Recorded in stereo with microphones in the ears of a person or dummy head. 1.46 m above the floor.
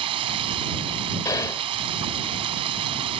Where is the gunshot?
15° left (ahead or behind).